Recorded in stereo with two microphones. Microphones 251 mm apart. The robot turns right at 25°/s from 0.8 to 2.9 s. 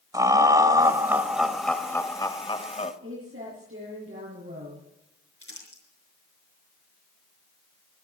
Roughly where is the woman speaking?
Right.